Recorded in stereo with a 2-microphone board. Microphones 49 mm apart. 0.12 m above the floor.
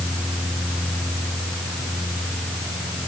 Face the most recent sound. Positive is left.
No sound to turn to.